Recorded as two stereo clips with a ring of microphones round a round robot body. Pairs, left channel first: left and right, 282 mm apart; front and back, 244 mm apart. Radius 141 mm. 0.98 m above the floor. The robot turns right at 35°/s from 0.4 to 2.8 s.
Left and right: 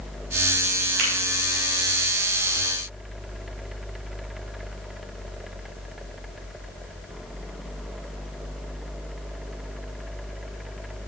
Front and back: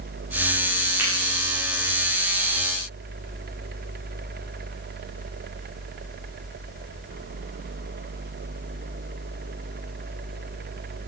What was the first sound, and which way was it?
A finger snap, 100° right.